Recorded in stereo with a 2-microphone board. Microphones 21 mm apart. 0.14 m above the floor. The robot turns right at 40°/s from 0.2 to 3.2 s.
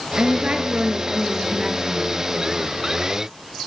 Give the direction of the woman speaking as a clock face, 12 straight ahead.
3 o'clock.